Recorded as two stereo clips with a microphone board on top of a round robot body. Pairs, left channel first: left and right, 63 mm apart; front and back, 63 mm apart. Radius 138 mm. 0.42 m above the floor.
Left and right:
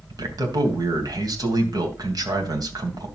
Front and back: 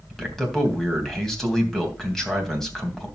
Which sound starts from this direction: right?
A man speaking, at 0.1 s.